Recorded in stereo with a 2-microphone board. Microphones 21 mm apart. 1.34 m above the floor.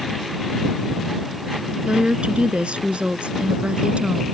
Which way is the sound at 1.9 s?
70° right (ahead or behind).